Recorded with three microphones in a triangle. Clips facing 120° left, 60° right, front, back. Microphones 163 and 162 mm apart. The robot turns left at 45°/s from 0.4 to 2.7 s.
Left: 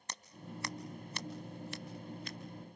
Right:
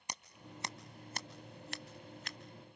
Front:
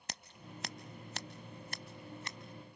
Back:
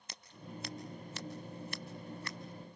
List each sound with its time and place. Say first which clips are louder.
0.1 s scissors: left 3 dB, back 1 dB; 15° left, 1.0 m; by 2.4 s 70° right, 1.0 m